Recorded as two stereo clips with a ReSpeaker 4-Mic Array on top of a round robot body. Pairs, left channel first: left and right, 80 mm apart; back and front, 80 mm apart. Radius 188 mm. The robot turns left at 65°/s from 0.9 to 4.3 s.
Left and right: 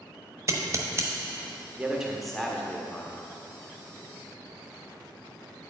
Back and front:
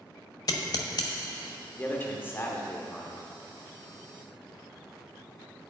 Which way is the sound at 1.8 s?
150° right.